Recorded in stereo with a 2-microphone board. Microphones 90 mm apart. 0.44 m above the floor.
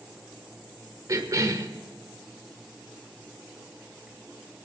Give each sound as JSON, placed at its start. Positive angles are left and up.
{"t": 1.1, "sound": "a cough", "side_deg": -40, "distance_m": 1.3}